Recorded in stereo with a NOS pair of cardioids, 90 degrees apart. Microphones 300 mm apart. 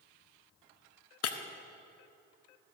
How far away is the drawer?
I don't hear a drawer.